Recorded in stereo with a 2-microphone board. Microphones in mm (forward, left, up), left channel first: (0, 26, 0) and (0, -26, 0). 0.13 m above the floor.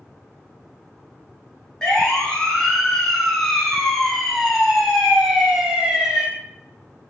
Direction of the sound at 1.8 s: 15° left (ahead or behind).